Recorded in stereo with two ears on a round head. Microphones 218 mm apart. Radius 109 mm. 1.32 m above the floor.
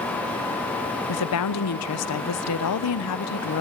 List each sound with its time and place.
1.1 s a woman speaking: 65° left (ahead or behind), 0.7 m